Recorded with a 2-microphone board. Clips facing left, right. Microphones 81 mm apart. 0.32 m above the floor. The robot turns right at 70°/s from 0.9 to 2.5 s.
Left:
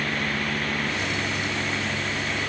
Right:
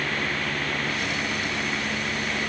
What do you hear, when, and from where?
Only background noise.